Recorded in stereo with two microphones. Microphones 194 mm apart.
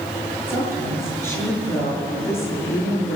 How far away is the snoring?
No snoring in this recording.